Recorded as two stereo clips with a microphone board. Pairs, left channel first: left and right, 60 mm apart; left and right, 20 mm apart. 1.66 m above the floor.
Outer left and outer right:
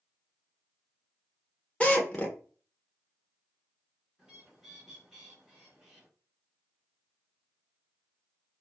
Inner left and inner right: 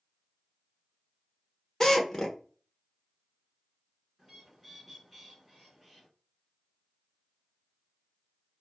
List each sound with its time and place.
1.8 s a drill: 20° left (ahead or behind), 0.9 m
4.2 s a bird: 10° right (ahead or behind), 2.0 m